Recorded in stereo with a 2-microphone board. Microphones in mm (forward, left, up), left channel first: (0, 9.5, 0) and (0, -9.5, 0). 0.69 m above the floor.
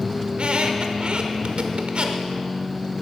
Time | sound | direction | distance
0.3 | a squeak | 60° right (ahead or behind) | 0.9 m